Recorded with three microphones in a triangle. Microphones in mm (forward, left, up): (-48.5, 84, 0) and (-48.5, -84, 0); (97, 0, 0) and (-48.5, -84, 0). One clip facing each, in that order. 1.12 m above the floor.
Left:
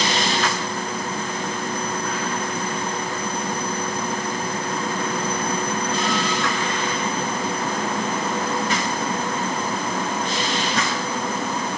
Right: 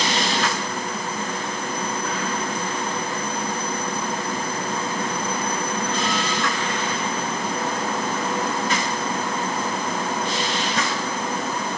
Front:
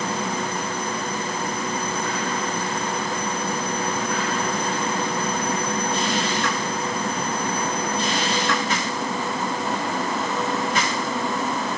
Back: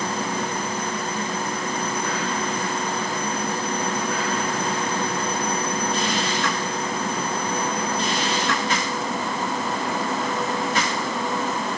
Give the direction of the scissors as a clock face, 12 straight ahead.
No scissors in this recording.